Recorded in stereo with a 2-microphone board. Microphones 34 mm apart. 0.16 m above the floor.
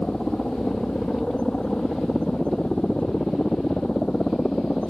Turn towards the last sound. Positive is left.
turn(degrees=30)  # may be behind; listen again after turning